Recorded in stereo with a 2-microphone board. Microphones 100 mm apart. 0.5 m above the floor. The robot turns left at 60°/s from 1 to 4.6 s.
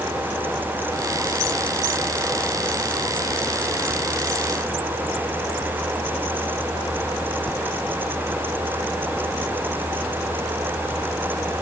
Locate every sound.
Only background noise.